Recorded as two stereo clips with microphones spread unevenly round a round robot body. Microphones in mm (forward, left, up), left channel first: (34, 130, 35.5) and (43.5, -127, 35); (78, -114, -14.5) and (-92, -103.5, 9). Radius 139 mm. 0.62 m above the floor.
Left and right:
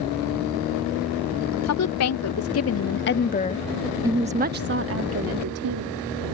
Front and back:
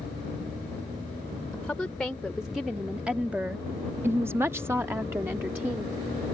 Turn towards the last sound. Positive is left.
turn(degrees=-100)